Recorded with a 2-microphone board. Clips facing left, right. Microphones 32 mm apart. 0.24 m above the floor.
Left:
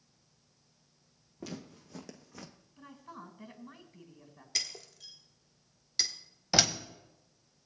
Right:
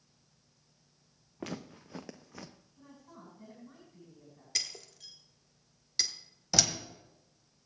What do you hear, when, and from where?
1.4 s footsteps: 45° right (ahead or behind), 1.0 m; by 2.5 s 5° right (ahead or behind), 0.9 m
2.8 s a woman speaking: 60° left (ahead or behind), 3 m
4.5 s breaking glass: centre (ahead or behind), 1.0 m
6.5 s a door slam: 25° left (ahead or behind), 1.0 m